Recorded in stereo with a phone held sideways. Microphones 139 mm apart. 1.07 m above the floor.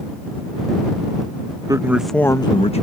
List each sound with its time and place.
1.7 s a man speaking: 25° right (ahead or behind); by 2.8 s 50° left (ahead or behind)